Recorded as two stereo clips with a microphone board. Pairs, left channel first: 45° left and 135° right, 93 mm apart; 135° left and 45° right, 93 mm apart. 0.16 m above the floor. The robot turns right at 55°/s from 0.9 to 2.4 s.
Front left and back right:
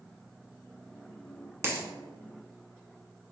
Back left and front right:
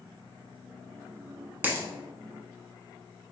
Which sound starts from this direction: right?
A dropped coin, at 1.6 s.